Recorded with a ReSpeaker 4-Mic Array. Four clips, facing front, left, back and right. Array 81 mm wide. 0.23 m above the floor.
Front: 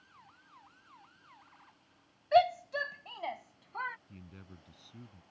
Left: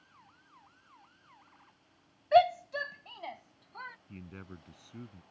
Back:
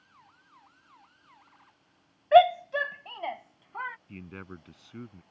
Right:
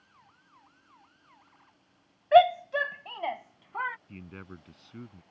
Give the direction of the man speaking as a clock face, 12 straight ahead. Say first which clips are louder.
Right 3 dB, back 10 dB; 5 o'clock.